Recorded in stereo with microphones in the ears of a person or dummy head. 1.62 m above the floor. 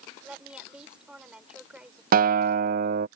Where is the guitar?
50° right (ahead or behind).